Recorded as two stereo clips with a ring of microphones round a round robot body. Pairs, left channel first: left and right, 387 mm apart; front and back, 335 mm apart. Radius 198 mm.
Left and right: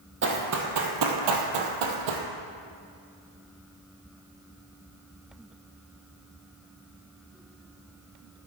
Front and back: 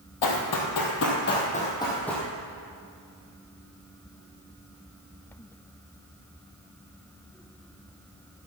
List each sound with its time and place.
0.2 s running footsteps: 30° right, 1.7 m; by 2.3 s 90° right, 1.8 m